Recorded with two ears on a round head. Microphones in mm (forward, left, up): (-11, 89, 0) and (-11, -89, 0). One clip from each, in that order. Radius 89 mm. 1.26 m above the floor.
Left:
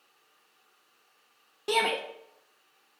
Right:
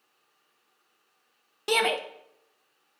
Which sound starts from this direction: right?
A shout, at 1.7 s.